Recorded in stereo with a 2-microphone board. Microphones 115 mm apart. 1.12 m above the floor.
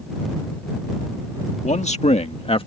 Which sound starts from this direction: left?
A man speaking, at 1.6 s.